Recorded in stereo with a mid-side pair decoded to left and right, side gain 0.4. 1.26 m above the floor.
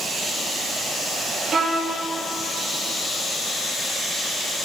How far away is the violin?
About 2 m.